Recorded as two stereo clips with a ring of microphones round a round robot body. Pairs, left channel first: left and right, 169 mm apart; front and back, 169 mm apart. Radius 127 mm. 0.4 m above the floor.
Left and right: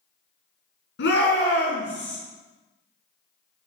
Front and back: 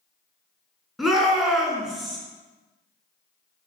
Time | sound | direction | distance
1.0 | a shout | 90° left | 5 m